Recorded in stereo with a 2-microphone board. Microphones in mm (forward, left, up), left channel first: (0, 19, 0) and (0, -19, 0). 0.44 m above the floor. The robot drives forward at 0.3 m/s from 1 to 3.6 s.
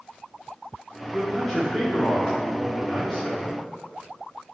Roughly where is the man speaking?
Centre.